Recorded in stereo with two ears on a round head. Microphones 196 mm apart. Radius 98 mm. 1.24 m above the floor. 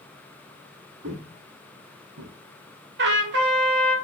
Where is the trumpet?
55° right (ahead or behind), 1.7 m.